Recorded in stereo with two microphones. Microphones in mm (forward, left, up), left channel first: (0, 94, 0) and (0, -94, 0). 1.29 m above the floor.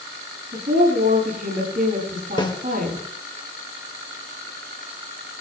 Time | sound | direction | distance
0.5 | a woman speaking | 50° right (ahead or behind) | 8.5 m
2.4 | a snare drum | 25° left (ahead or behind) | 2.0 m